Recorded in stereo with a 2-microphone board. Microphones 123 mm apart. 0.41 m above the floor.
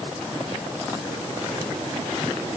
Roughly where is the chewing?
No chewing in this recording.